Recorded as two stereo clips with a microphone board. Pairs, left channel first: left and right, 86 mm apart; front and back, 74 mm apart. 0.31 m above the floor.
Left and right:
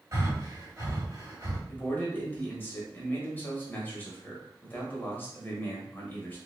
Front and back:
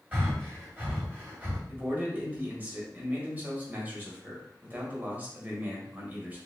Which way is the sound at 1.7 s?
135° left.